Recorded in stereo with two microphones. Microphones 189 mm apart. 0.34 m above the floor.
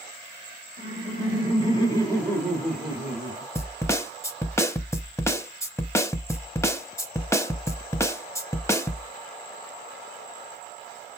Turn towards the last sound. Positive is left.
turn(degrees=15)  # may be behind; listen again after turning